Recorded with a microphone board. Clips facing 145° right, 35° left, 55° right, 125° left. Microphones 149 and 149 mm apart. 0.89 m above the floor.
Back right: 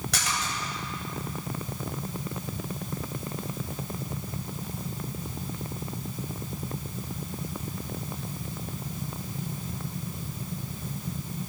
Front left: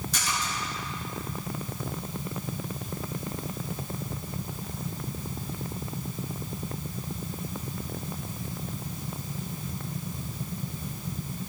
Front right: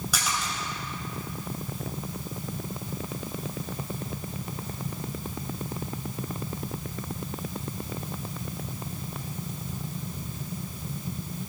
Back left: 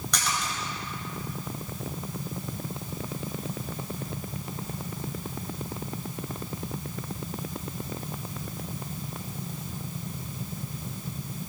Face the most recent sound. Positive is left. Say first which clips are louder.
# even, back left 2 dB
turn(degrees=-140)